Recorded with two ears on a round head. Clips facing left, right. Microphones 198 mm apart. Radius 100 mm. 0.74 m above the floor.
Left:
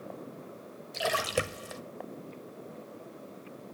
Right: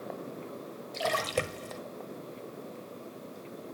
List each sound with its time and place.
0.9 s a splash: 10° left (ahead or behind), 0.8 m